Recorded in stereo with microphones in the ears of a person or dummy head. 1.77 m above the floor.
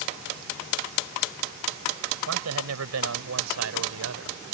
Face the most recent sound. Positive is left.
turn(degrees=-85)